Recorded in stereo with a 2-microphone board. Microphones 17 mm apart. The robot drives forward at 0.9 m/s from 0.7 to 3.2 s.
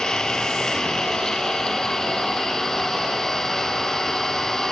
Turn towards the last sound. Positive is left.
turn(degrees=25)  # may be behind; listen again after turning